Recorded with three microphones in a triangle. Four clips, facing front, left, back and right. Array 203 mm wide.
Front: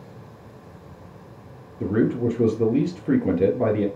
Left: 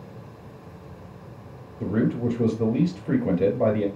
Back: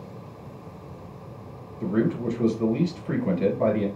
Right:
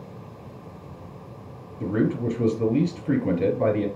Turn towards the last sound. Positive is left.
turn(degrees=-5)